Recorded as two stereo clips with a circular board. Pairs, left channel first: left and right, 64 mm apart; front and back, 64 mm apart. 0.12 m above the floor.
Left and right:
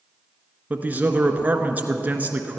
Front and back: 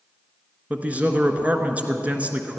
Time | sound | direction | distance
0.7 | a man speaking | 135° right | 1.3 m